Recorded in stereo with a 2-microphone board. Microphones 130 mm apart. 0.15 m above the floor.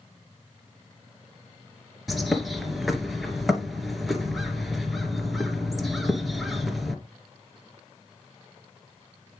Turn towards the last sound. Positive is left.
turn(degrees=0)  # may be behind; listen again after turning